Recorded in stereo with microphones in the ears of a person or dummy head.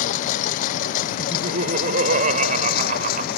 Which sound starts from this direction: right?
Laughter, at 1.2 s.